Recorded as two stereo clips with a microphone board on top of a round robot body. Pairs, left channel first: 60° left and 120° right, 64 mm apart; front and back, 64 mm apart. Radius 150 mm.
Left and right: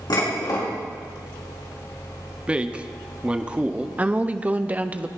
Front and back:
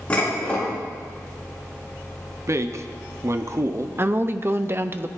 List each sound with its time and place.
0.1 s dishes clattering: 70° left, 6 m
2.5 s a man speaking: 175° left, 1.3 m
4.0 s a woman speaking: 170° right, 1.1 m